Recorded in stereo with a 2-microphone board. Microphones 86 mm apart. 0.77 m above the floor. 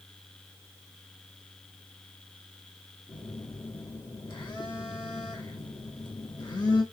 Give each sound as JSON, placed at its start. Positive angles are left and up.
{"t": 3.1, "sound": "a phone buzzing", "side_deg": 55, "distance_m": 1.1}